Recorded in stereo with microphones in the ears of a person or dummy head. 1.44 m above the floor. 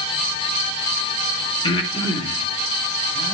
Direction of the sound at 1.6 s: 25° left (ahead or behind).